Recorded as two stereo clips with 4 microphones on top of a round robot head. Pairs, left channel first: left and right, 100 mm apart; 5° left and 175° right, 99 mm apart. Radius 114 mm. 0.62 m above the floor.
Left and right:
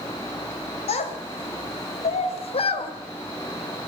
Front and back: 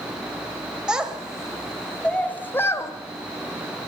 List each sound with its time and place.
0.9 s a child speaking: 105° left, 2 m; by 2.9 s 65° left, 1.7 m